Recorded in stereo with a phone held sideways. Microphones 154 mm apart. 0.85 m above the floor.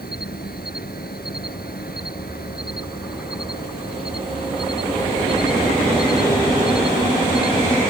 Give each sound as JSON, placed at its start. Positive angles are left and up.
{"t": 0.0, "sound": "an insect", "side_deg": 85}